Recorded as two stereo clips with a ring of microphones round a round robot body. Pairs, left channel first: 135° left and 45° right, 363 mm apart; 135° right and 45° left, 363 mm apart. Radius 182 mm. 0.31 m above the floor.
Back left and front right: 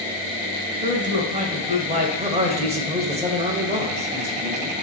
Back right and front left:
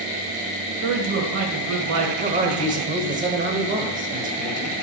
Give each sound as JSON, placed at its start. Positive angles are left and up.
{"t": 0.8, "sound": "a man speaking", "azimuth_deg": 15, "distance_m": 1.4}
{"t": 2.2, "sound": "a man speaking", "azimuth_deg": 5, "distance_m": 1.0}